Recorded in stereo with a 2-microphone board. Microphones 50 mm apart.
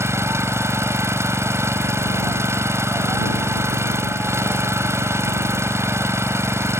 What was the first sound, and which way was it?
An engine running, 70° right (ahead or behind).